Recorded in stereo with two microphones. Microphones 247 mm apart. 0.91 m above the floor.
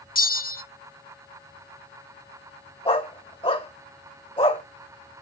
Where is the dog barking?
20° left (ahead or behind), 1.4 m.